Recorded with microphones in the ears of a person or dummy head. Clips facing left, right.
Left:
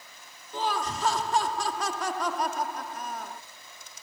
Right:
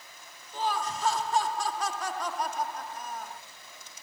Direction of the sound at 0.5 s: 60° left (ahead or behind).